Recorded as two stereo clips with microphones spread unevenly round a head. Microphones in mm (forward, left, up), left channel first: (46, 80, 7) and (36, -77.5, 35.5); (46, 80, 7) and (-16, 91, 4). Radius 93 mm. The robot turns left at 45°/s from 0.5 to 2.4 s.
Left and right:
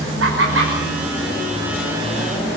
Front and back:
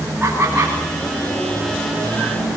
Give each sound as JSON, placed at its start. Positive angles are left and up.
{"t": 0.2, "sound": "laughter", "azimuth_deg": -110, "distance_m": 6.0}